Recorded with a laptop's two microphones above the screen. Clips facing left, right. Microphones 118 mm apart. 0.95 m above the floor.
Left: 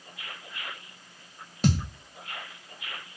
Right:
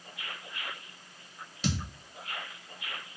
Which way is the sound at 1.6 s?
50° left (ahead or behind).